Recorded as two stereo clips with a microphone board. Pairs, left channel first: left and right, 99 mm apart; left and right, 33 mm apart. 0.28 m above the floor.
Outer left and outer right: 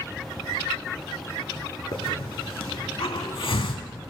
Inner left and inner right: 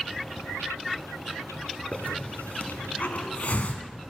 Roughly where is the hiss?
Left.